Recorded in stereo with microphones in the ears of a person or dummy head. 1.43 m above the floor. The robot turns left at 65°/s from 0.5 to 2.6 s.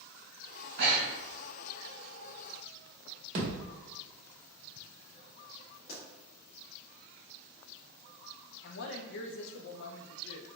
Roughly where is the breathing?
Right.